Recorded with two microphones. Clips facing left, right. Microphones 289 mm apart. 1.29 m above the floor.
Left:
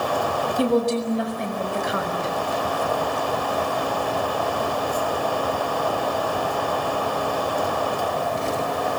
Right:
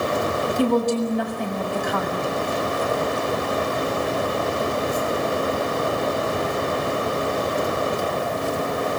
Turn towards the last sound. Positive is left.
turn(degrees=20)  # may be behind; listen again after turning